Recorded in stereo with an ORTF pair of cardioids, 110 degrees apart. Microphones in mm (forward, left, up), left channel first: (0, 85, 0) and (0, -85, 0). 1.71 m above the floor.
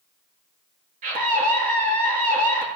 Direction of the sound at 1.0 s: 55° right.